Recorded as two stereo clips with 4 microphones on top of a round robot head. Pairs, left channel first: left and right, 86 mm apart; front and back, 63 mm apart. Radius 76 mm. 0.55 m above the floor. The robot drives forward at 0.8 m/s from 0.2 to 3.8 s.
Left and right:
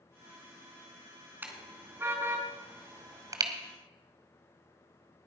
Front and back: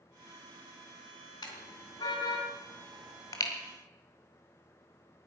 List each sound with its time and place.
1.4 s a car horn: 20° right, 3 m; by 3.5 s 45° right, 1.7 m